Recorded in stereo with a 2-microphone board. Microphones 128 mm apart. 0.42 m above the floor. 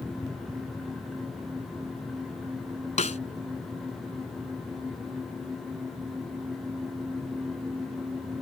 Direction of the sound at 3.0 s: 65° left (ahead or behind).